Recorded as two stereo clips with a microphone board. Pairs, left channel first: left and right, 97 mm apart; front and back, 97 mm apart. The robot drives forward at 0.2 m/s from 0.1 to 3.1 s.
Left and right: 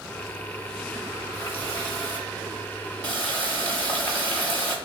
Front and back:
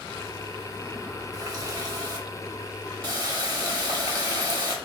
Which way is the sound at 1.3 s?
150° left.